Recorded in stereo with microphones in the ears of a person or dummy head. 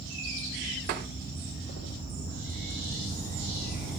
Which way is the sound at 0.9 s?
45° right (ahead or behind).